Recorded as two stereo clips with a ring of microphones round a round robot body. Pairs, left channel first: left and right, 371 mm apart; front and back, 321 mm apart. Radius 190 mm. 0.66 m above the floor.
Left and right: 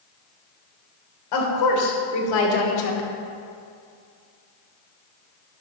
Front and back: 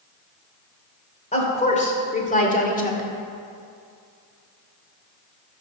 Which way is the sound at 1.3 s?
70° left.